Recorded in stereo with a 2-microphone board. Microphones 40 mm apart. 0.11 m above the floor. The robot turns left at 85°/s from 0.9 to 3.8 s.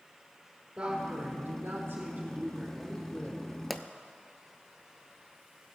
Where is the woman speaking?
20° right, 4 m; by 3.4 s 125° left, 4 m.